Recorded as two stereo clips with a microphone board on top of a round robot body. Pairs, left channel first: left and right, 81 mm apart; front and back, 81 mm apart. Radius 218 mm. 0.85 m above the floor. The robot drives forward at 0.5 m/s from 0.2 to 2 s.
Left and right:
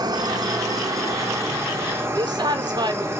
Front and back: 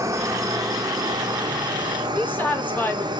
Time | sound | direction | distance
0.0 | an insect | 125° right | 1.0 m
2.1 | a woman speaking | 65° right | 1.7 m